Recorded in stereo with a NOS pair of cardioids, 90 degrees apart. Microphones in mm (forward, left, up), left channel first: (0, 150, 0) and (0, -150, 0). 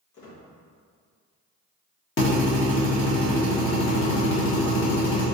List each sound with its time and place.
0.1 s a squeak: 70° left, 1.3 m
2.2 s a drill: 40° left, 1.4 m